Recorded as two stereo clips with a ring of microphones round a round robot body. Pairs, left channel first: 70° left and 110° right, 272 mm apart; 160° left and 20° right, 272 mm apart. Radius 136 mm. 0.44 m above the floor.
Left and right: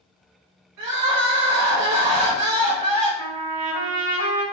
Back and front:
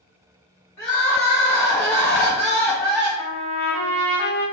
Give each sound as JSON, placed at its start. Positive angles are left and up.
{"t": 0.8, "sound": "crying", "azimuth_deg": -115, "distance_m": 1.7}
{"t": 3.2, "sound": "a trumpet", "azimuth_deg": -115, "distance_m": 1.7}